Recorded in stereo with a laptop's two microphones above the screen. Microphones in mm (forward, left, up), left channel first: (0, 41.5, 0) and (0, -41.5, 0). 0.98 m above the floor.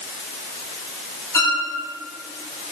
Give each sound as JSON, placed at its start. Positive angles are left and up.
{"t": 1.3, "sound": "a violin", "side_deg": 30, "distance_m": 2.0}